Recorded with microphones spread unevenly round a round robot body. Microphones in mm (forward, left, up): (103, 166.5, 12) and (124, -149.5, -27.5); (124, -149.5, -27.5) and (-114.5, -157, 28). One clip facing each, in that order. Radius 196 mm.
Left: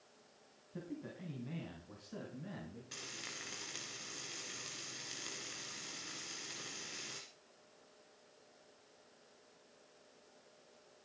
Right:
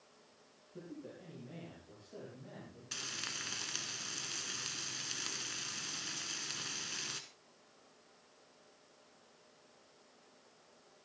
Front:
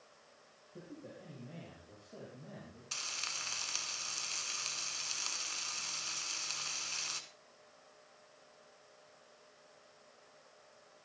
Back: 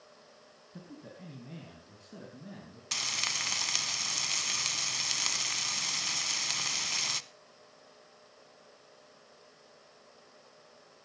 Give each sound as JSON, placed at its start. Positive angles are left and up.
{"t": 0.7, "sound": "a man speaking", "azimuth_deg": 135, "distance_m": 3.5}
{"t": 2.9, "sound": "frying", "azimuth_deg": -160, "distance_m": 1.1}